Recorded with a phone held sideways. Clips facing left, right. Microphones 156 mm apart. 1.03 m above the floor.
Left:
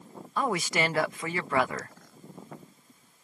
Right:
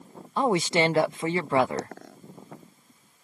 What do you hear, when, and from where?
0.4 s a woman speaking: 25° right (ahead or behind)
1.8 s a dropped coin: 75° right (ahead or behind)